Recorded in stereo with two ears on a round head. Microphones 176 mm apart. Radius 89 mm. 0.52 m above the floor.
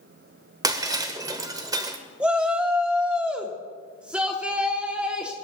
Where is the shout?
5° right (ahead or behind), 1.0 m.